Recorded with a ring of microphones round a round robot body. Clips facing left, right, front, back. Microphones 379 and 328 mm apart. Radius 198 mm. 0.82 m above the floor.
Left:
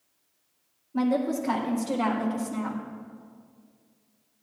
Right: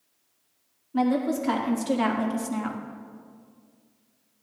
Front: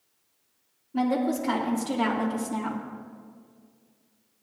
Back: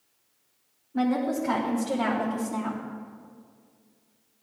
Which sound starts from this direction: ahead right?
A woman speaking, at 0.9 s.